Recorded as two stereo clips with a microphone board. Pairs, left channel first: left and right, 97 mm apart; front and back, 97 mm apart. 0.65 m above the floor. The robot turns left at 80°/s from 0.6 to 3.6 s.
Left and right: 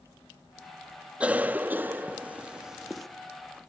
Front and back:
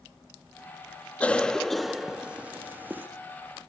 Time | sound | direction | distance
1.2 | a cough | 40° right | 0.5 m